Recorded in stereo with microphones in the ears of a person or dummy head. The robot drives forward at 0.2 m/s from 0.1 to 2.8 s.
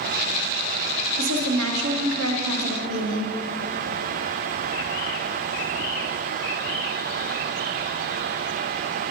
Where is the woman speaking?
80° right, 1.1 m.